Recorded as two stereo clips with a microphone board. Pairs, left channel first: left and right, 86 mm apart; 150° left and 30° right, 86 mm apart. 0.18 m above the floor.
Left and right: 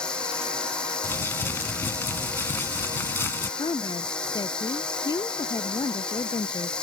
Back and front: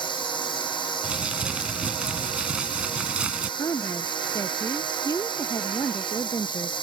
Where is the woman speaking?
105° left.